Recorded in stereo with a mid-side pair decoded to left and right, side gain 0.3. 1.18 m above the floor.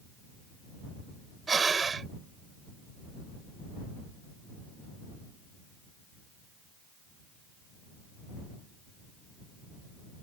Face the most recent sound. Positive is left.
turn(degrees=-50)